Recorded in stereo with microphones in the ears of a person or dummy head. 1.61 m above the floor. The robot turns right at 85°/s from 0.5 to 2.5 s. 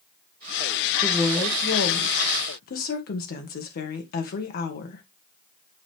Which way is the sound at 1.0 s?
5° left.